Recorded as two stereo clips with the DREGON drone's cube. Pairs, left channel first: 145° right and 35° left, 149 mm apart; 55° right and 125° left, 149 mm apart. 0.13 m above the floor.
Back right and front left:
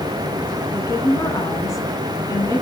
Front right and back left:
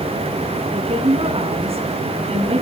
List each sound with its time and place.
0.7 s a woman speaking: 150° left, 2 m